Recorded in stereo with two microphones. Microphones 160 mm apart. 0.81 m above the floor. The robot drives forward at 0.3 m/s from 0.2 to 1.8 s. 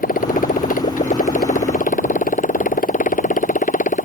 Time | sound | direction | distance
0.0 | a motorcycle | 60° left (ahead or behind) | ?